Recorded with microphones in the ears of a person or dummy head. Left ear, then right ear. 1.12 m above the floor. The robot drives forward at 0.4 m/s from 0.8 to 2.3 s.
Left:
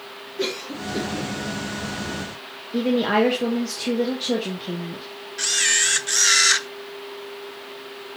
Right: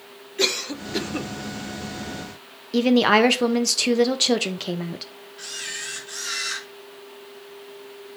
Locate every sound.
0.4 s a cough: 50° right (ahead or behind), 1.2 m; by 1.3 s 55° right (ahead or behind), 1.1 m
2.7 s a woman speaking: 60° right (ahead or behind), 0.9 m
5.4 s a camera shutter: 55° left (ahead or behind), 0.6 m